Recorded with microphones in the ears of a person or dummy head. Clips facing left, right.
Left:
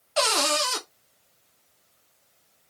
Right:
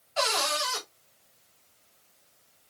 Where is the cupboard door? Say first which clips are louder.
Left 5 dB; 70° left (ahead or behind), 1.3 m.